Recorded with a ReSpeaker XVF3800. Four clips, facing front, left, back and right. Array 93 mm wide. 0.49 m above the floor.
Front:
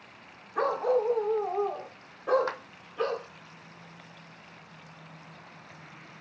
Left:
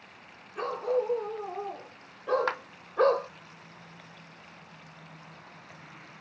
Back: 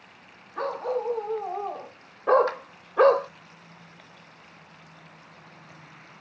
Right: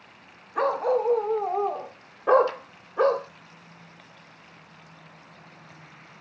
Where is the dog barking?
80° right, 1.2 m; by 3.3 s 175° left, 0.6 m.